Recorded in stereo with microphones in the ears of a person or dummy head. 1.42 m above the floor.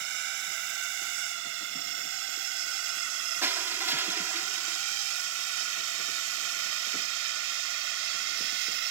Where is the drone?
65° right (ahead or behind); by 8.9 s 70° right (ahead or behind).